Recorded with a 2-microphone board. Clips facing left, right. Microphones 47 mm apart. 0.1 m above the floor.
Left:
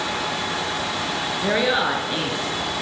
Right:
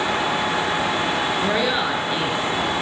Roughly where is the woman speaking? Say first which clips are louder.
Left 5 dB; centre.